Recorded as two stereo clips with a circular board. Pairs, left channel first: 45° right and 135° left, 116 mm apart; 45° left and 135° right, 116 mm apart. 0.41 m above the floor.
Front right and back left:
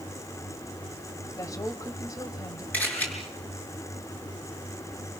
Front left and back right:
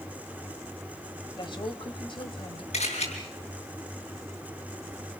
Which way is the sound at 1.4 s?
10° left.